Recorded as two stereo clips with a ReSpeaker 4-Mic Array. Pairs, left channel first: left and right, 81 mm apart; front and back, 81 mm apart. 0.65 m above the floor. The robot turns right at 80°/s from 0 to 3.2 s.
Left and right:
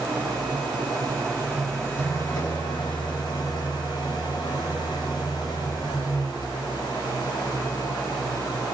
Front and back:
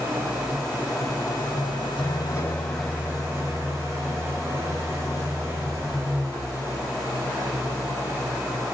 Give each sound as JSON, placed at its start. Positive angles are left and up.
{"t": 0.0, "sound": "an engine running", "azimuth_deg": -135, "distance_m": 3.5}